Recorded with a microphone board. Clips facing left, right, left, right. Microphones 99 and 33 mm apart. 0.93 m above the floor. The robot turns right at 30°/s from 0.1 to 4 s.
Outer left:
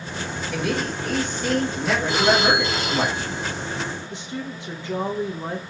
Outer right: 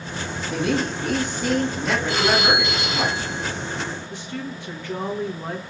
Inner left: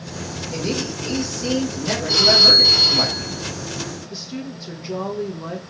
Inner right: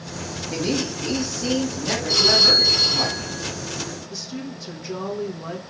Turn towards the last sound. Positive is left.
turn(degrees=20)  # may be behind; listen again after turning